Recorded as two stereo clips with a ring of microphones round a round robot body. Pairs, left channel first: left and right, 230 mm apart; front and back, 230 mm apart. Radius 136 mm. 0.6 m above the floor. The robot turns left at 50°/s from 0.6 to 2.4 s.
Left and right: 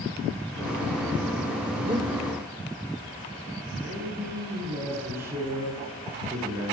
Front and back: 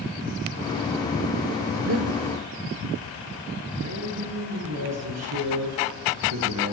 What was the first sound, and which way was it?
Breathing, 150° right.